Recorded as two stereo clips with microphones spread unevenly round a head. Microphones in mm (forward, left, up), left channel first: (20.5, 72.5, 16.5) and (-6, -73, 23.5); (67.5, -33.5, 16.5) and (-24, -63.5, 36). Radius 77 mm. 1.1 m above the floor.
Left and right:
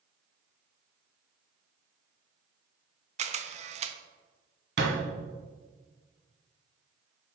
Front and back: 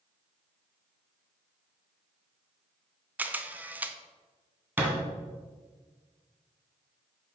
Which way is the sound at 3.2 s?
80° right.